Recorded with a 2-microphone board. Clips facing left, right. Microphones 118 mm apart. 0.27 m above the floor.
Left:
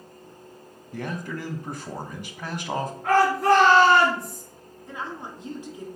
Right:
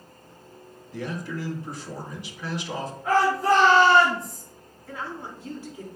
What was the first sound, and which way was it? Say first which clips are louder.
A man speaking: even; 55° left (ahead or behind).